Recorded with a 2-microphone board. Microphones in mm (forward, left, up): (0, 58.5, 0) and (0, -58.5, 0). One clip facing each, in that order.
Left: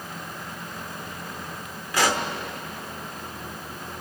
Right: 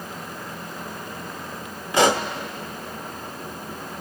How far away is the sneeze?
I don't hear a sneeze.